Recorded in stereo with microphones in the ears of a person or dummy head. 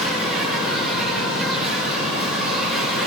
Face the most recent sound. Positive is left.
turn(degrees=0)  # may be behind; listen again after turning